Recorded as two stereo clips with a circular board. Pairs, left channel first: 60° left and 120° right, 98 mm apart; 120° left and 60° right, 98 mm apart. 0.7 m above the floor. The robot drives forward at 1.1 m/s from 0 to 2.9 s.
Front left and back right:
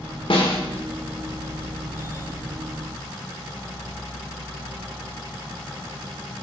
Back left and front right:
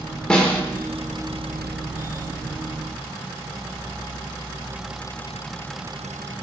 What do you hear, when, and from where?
0.3 s a snare drum: 40° left, 1.6 m; by 0.6 s 50° left, 1.4 m